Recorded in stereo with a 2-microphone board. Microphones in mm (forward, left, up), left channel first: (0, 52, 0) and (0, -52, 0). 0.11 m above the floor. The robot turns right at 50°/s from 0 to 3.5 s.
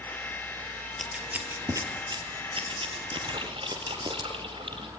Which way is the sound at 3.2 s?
40° right (ahead or behind).